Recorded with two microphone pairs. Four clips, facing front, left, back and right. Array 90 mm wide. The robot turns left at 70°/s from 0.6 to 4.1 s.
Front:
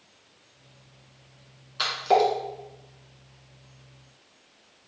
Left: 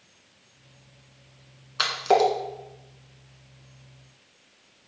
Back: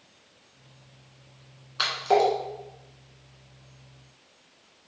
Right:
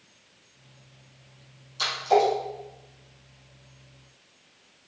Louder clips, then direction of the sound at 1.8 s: Left 1 dB, front 1 dB; 110° left.